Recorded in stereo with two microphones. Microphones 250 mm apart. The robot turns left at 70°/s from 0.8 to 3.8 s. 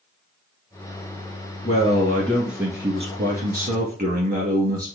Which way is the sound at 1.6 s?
55° left.